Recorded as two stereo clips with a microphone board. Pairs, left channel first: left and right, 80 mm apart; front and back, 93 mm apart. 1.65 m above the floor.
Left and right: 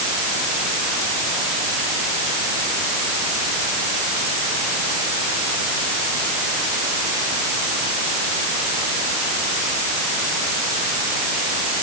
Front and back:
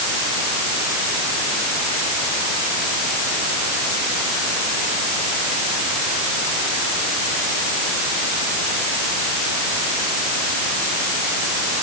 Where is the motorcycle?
I don't hear a motorcycle.